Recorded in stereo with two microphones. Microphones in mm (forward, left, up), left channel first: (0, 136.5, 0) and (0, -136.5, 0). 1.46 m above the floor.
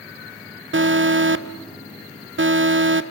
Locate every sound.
0.7 s an alarm: 45° right (ahead or behind), 0.6 m